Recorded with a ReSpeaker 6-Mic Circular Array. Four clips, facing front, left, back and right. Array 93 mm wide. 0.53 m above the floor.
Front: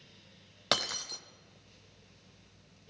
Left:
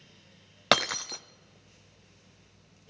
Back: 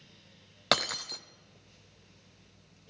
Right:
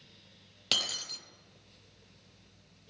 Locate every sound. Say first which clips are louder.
0.7 s breaking glass: left 14 dB, back 4 dB; 105° left, 0.5 m